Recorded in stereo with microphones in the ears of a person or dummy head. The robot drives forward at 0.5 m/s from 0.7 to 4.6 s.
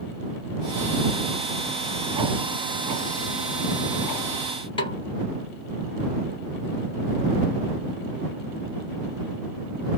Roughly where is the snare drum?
Left.